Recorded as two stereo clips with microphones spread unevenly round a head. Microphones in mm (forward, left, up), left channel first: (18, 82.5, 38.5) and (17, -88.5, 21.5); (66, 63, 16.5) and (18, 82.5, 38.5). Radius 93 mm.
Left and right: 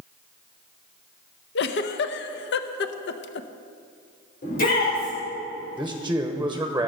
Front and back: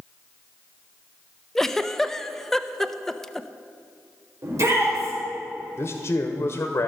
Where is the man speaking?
15° right, 0.9 m.